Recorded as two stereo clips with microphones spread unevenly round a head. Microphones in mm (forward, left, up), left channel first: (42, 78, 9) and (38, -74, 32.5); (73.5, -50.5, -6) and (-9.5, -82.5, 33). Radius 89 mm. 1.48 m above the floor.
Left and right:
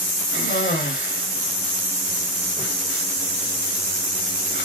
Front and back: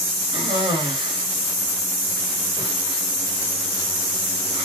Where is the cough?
135° left, 3 m.